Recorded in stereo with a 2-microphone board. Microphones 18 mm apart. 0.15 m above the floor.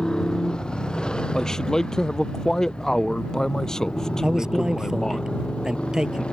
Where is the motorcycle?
50° left (ahead or behind); by 6.3 s 85° left.